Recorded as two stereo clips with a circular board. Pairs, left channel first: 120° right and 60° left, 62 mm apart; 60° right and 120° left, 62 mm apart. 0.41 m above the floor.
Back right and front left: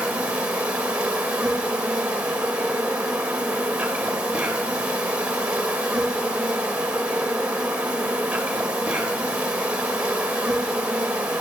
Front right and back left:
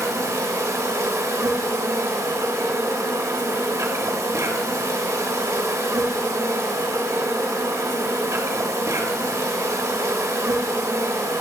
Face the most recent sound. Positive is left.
turn(degrees=125)